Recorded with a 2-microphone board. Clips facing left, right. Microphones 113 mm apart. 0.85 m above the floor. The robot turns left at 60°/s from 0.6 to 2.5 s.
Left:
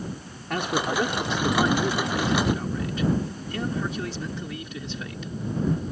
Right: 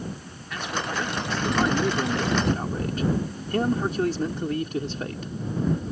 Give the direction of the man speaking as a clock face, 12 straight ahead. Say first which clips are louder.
Left 4 dB; 10 o'clock.